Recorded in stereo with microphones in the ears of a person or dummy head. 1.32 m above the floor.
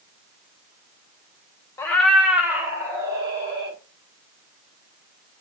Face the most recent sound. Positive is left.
turn(degrees=-20)  # may be behind; listen again after turning